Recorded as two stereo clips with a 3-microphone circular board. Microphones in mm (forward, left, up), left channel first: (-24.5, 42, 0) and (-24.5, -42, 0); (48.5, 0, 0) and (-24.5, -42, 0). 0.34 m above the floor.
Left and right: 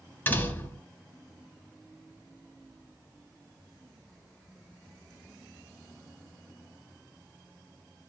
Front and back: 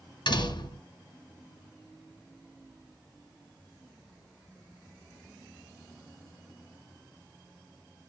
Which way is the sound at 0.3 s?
25° left.